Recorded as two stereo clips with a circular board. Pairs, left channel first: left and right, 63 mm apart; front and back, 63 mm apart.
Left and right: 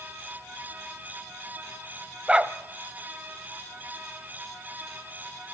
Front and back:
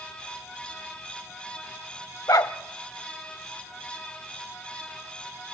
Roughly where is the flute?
No flute in this recording.